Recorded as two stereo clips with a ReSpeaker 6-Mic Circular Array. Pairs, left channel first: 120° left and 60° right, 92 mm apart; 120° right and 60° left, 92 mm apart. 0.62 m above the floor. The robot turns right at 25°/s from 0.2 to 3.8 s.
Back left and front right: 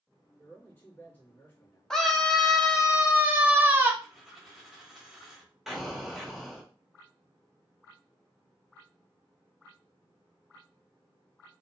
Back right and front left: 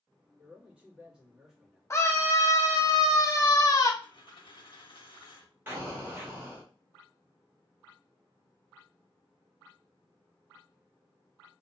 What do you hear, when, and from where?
0.4 s a man speaking: 105° left, 1.1 m; by 1.8 s 145° left, 1.1 m
1.9 s a scream: 160° right, 0.6 m; by 3.9 s 110° right, 0.6 m
4.0 s a dropped coin: 150° right, 1.0 m
5.7 s an explosion: 25° left, 0.9 m